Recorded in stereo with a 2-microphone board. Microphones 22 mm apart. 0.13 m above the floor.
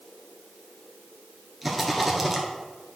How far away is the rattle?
About 1.3 m.